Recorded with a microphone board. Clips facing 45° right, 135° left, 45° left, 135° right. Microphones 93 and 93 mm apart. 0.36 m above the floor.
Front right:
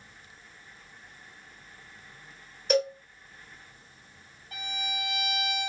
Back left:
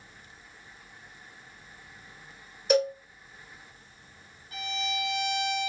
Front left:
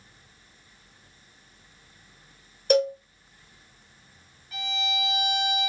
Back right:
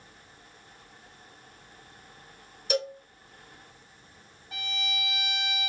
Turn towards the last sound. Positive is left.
turn(degrees=-80)